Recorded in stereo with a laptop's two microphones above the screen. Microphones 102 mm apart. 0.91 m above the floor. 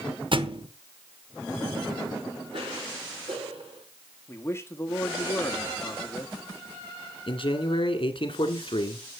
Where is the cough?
65° right (ahead or behind), 4 m.